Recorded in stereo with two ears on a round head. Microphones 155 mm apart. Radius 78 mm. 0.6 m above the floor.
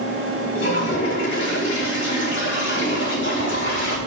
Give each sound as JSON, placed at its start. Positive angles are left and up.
{"t": 0.6, "sound": "a toilet flushing", "side_deg": 75, "distance_m": 4.0}